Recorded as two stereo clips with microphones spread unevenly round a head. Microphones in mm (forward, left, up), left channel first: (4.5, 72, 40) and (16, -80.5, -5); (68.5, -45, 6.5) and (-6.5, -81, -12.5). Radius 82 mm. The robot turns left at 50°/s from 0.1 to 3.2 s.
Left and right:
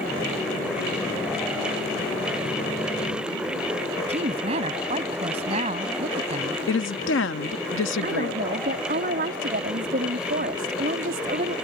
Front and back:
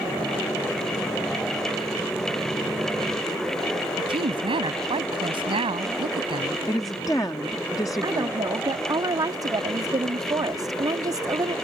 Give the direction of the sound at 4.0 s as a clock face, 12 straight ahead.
5 o'clock.